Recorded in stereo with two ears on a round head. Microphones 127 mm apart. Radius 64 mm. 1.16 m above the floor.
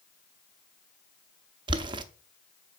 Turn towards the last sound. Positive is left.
turn(degrees=-35)  # may be behind; listen again after turning